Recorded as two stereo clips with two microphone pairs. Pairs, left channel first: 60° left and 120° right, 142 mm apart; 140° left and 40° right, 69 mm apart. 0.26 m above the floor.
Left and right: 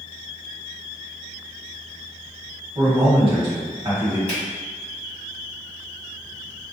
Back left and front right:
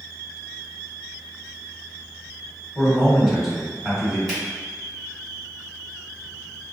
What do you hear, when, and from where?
2.8 s a man speaking: 115° right, 1.4 m
4.3 s a finger snap: 55° left, 1.9 m